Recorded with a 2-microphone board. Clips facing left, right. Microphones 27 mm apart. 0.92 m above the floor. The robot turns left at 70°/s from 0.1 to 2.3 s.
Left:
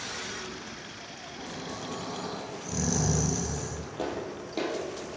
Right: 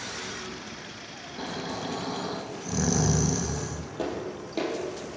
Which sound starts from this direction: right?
Snoring, at 1.4 s.